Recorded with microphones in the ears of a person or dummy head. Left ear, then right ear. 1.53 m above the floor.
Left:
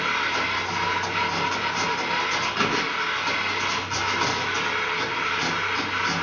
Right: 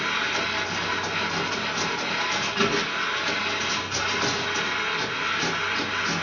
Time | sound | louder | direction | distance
0.0 | a machine running | left 1 dB | 15° left (ahead or behind) | 1.6 m